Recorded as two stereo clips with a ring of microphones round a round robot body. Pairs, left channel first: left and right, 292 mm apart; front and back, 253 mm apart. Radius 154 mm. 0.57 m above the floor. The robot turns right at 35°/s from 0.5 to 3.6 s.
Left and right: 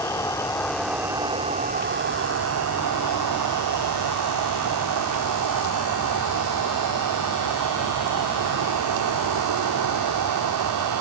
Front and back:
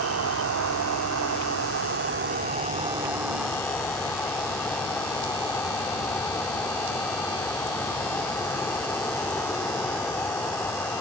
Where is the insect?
170° left; by 11.0 s 80° right.